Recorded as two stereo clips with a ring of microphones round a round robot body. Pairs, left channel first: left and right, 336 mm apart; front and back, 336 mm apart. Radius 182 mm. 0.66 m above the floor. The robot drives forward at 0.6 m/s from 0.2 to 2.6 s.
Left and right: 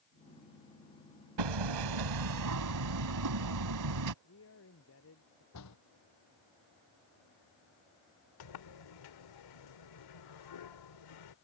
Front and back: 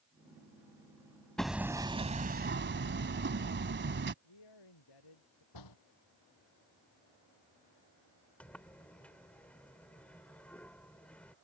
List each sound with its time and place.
1.4 s hammering: 90° right; by 4.1 s 120° right
4.2 s a man speaking: 35° left
5.5 s a door slam: 40° left
8.4 s a sliding door: 85° left